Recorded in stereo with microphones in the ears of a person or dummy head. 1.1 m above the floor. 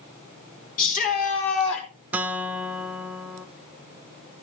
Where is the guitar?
10° right (ahead or behind), 0.6 m.